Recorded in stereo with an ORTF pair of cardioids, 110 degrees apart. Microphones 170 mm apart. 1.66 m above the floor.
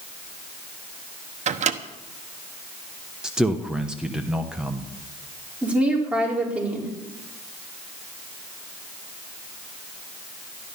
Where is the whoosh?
No whoosh in this recording.